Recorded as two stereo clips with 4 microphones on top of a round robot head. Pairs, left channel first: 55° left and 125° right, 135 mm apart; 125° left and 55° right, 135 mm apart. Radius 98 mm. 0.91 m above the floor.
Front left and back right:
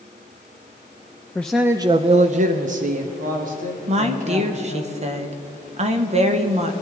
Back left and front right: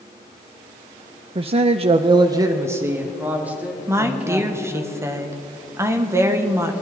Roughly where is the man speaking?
Ahead.